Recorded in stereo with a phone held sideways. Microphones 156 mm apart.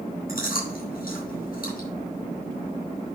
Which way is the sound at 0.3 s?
75° left (ahead or behind).